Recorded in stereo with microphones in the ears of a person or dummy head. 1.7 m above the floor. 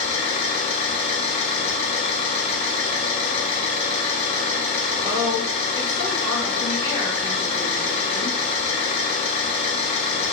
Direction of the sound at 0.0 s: 35° left (ahead or behind).